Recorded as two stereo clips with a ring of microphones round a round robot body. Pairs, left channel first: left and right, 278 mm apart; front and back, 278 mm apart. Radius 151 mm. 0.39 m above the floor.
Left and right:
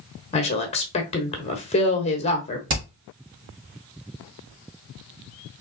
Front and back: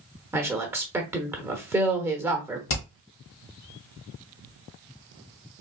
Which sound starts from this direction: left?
A woman speaking, at 0.3 s.